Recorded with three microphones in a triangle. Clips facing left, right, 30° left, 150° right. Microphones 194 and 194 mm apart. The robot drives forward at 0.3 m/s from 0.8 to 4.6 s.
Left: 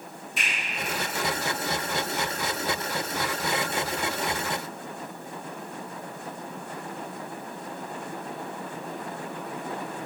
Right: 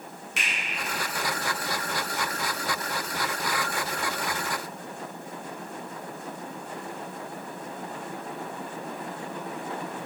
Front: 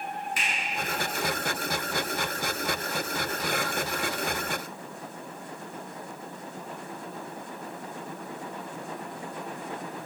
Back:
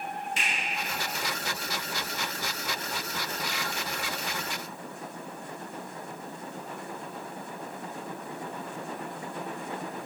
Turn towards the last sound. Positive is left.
turn(degrees=-130)